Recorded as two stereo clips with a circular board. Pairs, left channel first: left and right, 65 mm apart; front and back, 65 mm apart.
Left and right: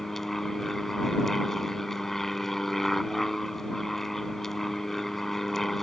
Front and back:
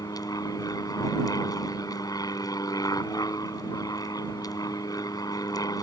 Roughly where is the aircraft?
Ahead.